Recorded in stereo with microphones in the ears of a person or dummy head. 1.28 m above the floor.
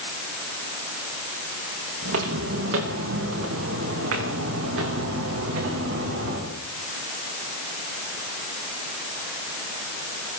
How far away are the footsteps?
About 5 m.